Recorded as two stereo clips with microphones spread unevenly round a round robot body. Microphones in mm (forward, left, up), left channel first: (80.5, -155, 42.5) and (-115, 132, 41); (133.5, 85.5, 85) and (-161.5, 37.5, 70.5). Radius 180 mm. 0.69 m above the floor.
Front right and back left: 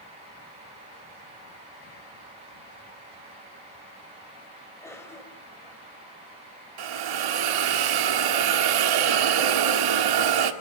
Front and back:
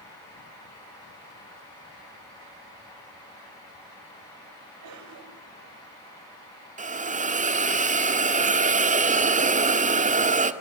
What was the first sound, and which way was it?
A cough, 140° right.